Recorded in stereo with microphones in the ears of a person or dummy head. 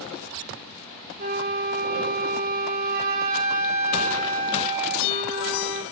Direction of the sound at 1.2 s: 50° right (ahead or behind).